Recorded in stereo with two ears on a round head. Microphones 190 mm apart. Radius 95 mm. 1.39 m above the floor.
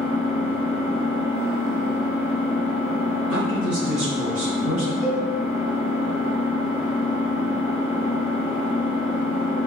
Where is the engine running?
10° right (ahead or behind), 0.9 m.